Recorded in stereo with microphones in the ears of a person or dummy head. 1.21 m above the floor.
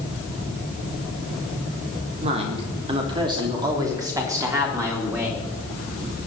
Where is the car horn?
No car horn in this recording.